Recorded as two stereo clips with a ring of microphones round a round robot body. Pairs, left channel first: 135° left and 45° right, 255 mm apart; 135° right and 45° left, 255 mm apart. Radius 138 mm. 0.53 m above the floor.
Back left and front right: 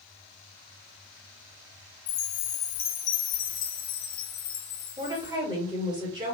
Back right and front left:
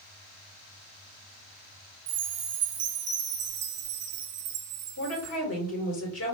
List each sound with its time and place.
2.1 s a chime: 95° left, 0.7 m
5.0 s a woman speaking: 115° right, 2.5 m